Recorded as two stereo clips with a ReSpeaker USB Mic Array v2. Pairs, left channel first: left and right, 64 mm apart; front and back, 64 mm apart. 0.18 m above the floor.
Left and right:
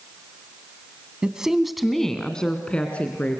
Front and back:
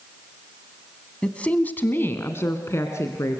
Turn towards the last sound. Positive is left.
turn(degrees=25)